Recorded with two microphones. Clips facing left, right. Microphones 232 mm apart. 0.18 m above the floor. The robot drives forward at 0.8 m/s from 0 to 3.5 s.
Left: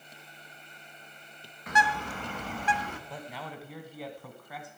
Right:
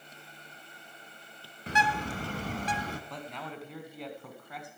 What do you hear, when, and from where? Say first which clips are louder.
1.7 s a bird: even; 30° right (ahead or behind), 1.2 m; by 3.0 s 40° right (ahead or behind), 1.0 m
3.1 s a man speaking: even; 5° left (ahead or behind), 1.1 m